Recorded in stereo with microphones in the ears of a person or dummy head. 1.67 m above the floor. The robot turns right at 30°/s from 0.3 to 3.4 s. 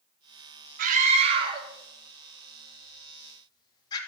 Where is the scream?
55° right (ahead or behind), 4 m; by 4.0 s 20° left (ahead or behind), 4 m.